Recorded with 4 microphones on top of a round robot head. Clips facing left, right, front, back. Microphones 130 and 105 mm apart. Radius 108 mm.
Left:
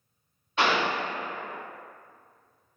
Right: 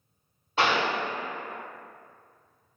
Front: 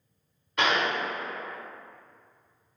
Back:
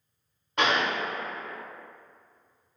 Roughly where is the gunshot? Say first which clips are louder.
Even, even; behind right.